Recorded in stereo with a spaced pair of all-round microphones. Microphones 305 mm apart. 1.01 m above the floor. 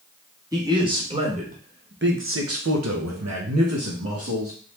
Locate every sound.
0.5 s a man speaking: 10° right (ahead or behind), 1.8 m; by 4.5 s 45° right (ahead or behind), 1.6 m